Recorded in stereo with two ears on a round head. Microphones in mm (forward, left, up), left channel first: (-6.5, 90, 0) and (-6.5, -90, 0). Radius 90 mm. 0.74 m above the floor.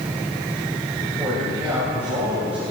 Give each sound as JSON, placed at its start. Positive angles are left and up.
{"t": 1.0, "sound": "a man speaking", "side_deg": -10, "distance_m": 4.5}